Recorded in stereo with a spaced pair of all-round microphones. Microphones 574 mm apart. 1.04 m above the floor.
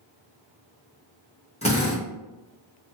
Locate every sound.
1.6 s a drill: 10° left (ahead or behind), 1.6 m